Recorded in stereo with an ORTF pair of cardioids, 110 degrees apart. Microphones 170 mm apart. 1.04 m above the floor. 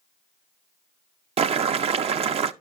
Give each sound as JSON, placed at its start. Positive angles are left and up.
{"t": 1.4, "sound": "boiling", "azimuth_deg": -35, "distance_m": 0.6}